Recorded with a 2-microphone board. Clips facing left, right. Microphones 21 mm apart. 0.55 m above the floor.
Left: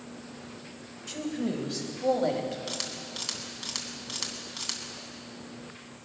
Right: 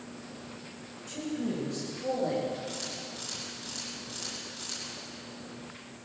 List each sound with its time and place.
1.1 s a man speaking: 35° left (ahead or behind), 3 m; by 2.6 s 65° left (ahead or behind), 4 m
2.7 s a camera shutter: 45° left (ahead or behind), 2.5 m